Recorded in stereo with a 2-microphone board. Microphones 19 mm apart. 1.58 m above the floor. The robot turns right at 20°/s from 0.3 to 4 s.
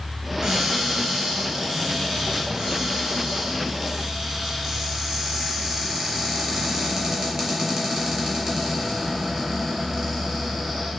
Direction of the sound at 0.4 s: 65° right.